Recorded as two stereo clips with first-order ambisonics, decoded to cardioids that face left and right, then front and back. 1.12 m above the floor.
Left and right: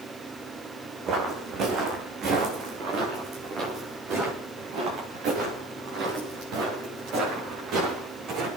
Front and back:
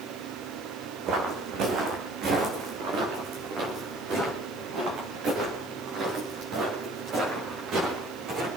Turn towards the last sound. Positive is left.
turn(degrees=-130)